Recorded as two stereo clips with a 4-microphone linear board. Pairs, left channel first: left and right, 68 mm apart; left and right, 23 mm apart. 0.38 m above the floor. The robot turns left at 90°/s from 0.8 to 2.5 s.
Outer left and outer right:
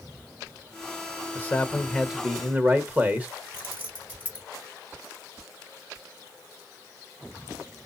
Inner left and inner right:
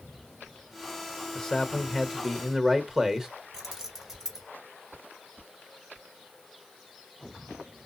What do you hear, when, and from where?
1.4 s a man speaking: 60° left, 1.0 m; by 3.3 s 45° right, 1.0 m
3.5 s keys jangling: 25° right (ahead or behind), 2.5 m